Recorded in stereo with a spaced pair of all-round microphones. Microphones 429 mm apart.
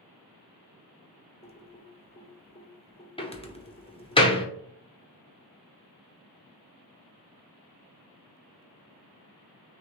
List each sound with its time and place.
1.4 s typing on a keyboard: 15° left (ahead or behind), 0.6 m
3.2 s a door slam: 15° left (ahead or behind), 0.7 m